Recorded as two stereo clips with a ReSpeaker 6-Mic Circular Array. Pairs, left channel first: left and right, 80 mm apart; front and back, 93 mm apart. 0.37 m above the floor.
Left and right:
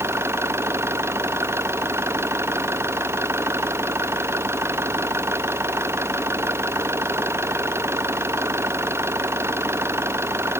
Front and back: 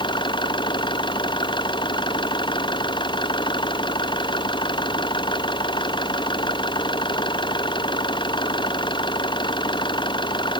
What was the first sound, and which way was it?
An engine running, 35° right.